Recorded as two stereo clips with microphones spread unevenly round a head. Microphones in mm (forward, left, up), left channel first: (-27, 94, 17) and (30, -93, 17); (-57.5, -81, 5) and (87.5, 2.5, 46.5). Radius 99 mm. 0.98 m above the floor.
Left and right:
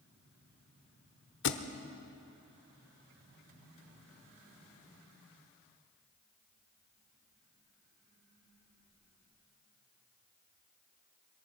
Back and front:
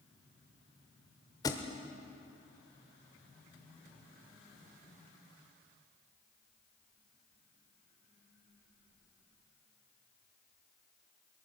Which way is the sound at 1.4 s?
130° left.